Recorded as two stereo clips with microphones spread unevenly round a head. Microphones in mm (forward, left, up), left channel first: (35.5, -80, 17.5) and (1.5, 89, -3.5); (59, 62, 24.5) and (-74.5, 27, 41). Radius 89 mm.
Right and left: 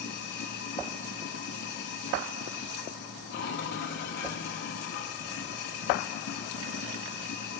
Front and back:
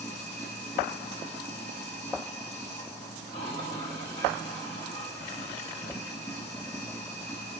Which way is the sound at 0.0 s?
55° right.